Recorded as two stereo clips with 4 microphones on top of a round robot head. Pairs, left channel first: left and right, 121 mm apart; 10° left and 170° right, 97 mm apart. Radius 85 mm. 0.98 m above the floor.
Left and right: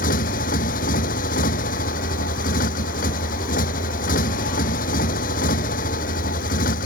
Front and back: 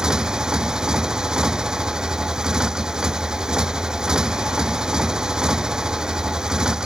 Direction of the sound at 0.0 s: 105° left.